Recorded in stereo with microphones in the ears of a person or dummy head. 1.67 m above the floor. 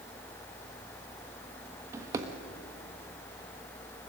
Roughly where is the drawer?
Centre.